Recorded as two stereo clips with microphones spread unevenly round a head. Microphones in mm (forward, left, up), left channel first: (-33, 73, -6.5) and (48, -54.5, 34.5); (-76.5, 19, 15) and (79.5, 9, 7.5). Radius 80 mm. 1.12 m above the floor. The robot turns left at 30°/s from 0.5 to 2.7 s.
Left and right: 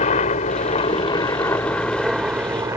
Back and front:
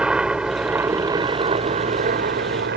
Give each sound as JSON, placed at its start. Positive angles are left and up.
{"t": 0.0, "sound": "a helicopter", "azimuth_deg": 80}